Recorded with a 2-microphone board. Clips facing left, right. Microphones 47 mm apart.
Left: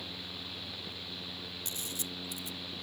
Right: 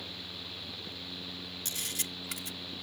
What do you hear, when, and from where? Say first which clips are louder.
1.6 s a camera shutter: right 4 dB; 85° right